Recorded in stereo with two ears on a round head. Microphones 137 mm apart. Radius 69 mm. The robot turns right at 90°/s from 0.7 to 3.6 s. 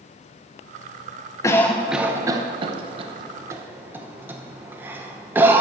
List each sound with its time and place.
1.4 s a cough: 20° left (ahead or behind), 0.8 m; by 5.6 s 15° right (ahead or behind), 0.8 m